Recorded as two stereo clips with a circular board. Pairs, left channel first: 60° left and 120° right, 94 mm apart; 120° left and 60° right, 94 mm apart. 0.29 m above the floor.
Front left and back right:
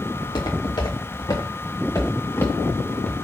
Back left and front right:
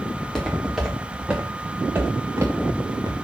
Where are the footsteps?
35° left, 4 m; by 3.1 s 15° right, 3 m.